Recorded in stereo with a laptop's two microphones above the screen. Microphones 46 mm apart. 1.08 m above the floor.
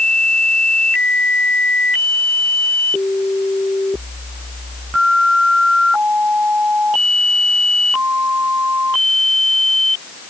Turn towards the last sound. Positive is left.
No sound to turn to.